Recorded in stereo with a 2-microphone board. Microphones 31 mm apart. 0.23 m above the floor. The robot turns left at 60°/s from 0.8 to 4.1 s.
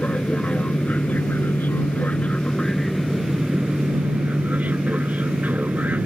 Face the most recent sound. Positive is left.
turn(degrees=-65)